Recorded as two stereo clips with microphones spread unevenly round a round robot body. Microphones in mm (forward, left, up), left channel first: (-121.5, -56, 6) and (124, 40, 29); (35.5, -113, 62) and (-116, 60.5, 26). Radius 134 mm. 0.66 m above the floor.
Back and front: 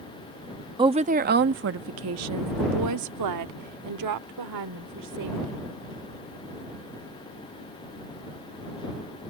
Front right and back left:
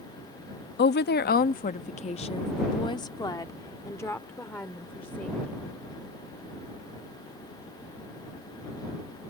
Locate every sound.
0.8 s a woman speaking: 50° right; by 5.6 s 40° left